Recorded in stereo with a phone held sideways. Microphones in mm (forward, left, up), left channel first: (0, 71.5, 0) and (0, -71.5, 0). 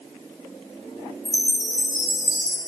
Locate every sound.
1.2 s a chime: 5° right (ahead or behind), 2 m